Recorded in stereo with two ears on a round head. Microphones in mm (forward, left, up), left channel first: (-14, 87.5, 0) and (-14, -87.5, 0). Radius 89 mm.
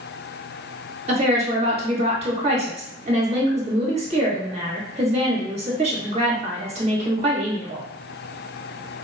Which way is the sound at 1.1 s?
35° right (ahead or behind).